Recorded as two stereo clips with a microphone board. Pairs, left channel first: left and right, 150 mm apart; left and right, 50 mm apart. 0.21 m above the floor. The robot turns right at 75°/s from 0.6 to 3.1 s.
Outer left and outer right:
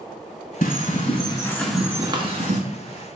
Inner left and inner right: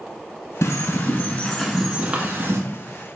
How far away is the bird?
About 1.0 m.